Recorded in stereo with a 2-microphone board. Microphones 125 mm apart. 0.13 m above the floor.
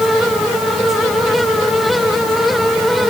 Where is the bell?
No bell in this recording.